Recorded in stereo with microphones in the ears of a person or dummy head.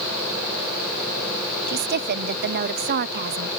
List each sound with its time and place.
1.7 s a woman speaking: 45° right (ahead or behind)